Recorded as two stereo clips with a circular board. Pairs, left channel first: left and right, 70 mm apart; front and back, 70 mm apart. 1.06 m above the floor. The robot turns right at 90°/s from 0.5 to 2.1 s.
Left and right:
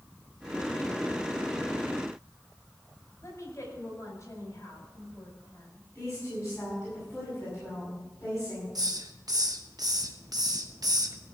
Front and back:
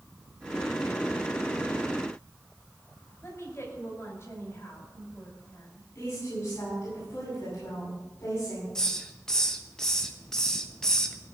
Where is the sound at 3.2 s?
45° left, 5 m.